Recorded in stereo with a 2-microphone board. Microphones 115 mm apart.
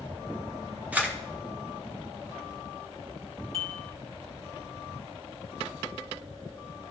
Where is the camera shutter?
15° right (ahead or behind), 1.5 m.